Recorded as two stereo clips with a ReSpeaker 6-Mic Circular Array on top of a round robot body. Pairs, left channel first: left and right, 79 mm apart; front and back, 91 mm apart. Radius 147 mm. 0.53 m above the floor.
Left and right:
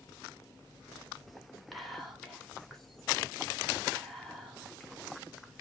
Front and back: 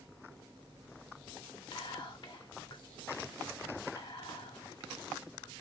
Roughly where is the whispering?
Ahead.